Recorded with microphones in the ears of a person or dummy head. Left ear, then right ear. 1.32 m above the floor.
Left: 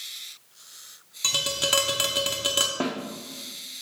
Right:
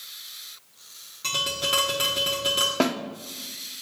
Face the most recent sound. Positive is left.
turn(degrees=-80)